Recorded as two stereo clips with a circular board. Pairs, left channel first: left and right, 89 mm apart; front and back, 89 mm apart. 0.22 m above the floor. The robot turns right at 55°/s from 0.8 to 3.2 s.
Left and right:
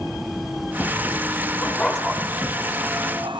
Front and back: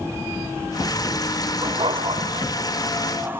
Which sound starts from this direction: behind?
A dog barking, at 1.6 s.